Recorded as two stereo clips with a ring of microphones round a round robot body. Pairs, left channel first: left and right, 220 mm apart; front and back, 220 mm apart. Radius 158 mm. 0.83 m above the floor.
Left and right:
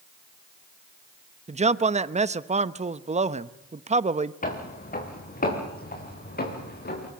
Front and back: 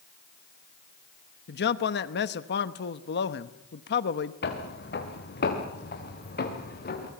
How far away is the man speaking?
About 0.9 m.